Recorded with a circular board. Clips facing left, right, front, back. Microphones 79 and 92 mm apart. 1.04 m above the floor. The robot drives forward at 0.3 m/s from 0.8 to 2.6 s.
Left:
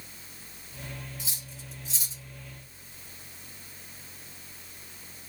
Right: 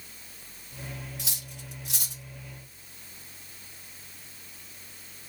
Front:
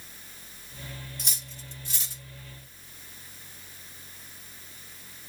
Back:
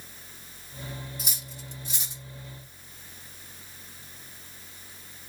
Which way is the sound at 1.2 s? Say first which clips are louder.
Right 1 dB, back 2 dB; 95° right.